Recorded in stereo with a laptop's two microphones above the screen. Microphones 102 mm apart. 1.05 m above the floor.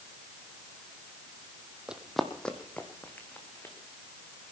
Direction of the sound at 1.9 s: 10° right (ahead or behind).